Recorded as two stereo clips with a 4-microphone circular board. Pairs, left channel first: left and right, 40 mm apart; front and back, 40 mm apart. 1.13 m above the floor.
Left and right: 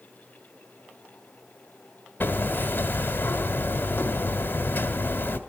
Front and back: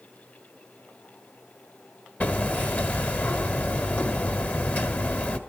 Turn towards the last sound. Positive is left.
turn(degrees=50)